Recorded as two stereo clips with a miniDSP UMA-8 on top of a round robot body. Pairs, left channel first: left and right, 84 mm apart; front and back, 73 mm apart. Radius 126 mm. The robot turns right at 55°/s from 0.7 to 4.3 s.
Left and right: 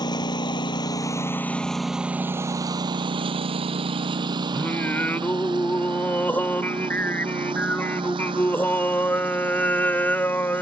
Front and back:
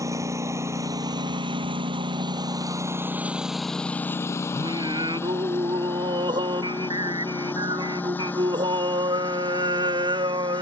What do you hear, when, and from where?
0.0 s a lawn mower: 130° left; by 10.6 s 70° right
4.5 s singing: 160° left